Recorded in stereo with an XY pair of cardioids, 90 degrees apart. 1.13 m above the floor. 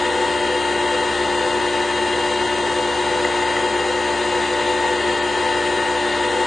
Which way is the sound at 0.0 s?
20° left.